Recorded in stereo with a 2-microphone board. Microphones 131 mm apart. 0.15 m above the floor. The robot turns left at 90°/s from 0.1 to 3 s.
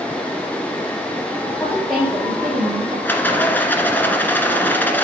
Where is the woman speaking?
40° left, 4 m; by 3.0 s 95° right, 4 m.